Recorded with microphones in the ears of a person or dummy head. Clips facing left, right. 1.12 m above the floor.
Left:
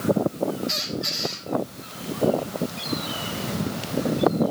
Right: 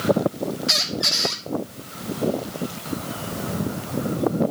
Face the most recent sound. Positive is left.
turn(degrees=-85)